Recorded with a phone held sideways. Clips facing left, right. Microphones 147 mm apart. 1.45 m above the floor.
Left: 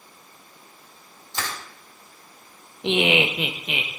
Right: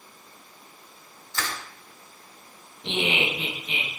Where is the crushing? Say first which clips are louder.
Left 1 dB; 20° left (ahead or behind), 1.5 m.